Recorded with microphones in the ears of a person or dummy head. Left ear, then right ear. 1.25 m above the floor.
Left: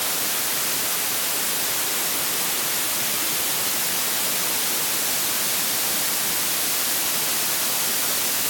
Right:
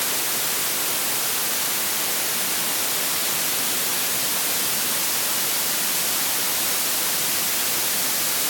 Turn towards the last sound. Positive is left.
No sound to turn to.